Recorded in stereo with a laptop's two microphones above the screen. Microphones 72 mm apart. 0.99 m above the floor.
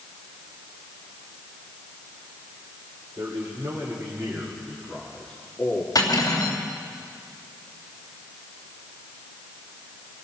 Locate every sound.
3.2 s a man speaking: 55° right (ahead or behind), 3.5 m; by 5.8 s 25° left (ahead or behind), 2 m
6.0 s cutlery clinking: 55° left (ahead or behind), 3 m